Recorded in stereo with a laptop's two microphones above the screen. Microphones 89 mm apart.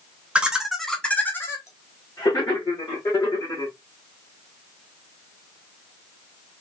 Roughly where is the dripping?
I don't hear dripping.